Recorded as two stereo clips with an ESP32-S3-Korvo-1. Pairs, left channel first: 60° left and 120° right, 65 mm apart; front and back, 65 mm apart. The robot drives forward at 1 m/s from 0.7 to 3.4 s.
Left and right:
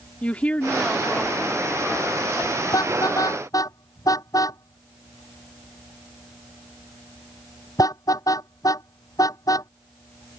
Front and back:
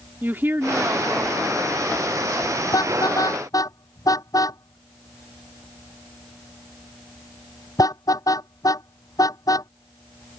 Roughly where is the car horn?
Ahead left.